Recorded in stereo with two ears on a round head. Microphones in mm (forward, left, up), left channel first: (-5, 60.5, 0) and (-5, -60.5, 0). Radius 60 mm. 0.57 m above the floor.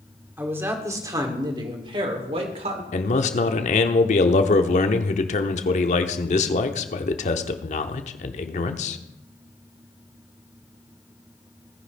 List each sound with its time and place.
0.4 s a man speaking: 15° right (ahead or behind), 2.0 m; by 2.8 s 50° right (ahead or behind), 2.5 m
2.9 s a man speaking: 55° left (ahead or behind), 1.1 m